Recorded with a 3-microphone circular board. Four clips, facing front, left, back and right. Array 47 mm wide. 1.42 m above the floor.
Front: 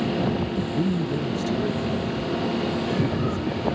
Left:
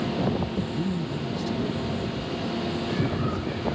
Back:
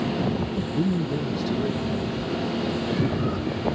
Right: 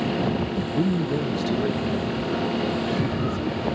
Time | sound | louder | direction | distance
0.7 | a man speaking | right 6 dB, back 1 dB | 105° right | ?